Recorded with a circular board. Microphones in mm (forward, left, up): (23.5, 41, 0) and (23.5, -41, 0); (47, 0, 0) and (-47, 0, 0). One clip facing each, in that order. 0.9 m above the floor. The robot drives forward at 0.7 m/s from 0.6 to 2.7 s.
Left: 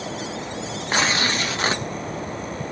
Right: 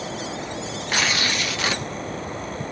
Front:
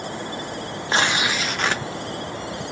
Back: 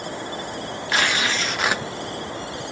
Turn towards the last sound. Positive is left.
turn(degrees=155)